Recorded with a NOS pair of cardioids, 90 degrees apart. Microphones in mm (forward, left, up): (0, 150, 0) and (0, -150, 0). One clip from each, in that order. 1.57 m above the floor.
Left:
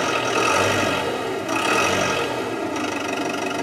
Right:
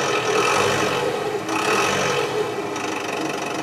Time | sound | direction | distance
0.0 | an engine running | 10° right | 1.8 m